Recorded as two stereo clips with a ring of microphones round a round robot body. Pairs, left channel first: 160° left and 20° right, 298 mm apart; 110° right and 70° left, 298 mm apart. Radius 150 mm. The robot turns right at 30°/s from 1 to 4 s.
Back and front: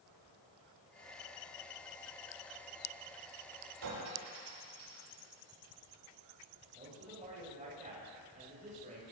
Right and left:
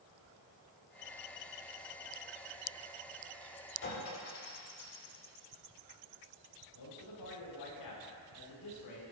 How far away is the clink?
About 8 m.